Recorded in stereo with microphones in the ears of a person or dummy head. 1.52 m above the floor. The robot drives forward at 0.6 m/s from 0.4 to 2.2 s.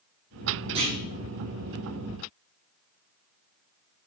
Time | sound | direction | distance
0.8 | a clunk | 30° right (ahead or behind) | 4 m